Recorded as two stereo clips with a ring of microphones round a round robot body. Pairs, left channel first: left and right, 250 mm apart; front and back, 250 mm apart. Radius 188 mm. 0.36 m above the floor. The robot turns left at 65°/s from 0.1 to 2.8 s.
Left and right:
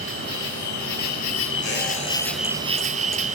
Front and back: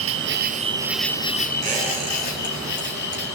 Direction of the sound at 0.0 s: 150° left.